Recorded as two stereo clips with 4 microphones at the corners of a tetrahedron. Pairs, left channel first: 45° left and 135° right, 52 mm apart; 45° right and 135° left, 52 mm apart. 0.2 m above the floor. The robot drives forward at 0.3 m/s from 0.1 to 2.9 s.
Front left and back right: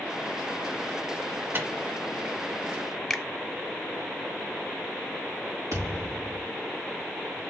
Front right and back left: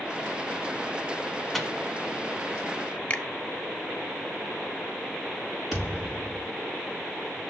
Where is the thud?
140° right, 4.5 m.